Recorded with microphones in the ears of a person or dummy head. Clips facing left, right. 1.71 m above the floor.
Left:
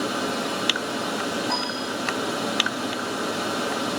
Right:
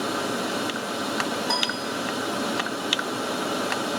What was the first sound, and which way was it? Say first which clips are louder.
A piano: left 1 dB; 40° right (ahead or behind).